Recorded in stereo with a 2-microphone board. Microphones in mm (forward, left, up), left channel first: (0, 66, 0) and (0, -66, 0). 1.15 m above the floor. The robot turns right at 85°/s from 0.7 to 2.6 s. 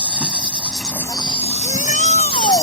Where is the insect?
10° right; by 2.6 s 155° left.